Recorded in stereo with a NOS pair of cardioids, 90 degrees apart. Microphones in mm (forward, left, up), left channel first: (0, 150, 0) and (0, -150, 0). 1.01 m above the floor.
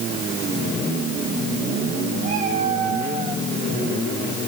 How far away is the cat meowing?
About 9.5 m.